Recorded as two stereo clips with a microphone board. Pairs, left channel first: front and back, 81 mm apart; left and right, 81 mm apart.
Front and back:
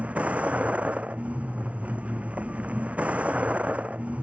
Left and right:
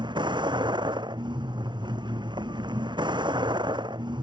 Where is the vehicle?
105° right.